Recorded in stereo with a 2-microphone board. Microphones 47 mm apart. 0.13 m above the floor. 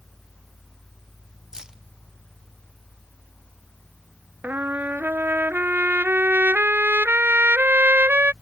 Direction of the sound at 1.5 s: 15° right (ahead or behind).